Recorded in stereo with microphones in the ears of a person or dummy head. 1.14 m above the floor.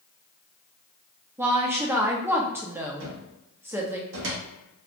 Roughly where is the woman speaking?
Centre.